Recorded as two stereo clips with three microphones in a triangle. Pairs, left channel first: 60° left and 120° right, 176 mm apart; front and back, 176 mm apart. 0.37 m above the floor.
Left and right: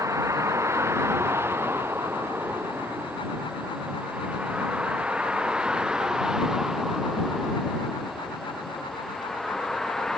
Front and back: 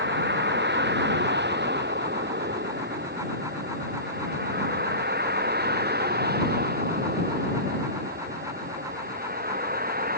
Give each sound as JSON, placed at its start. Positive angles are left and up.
{"t": 0.0, "sound": "a vehicle", "azimuth_deg": 165}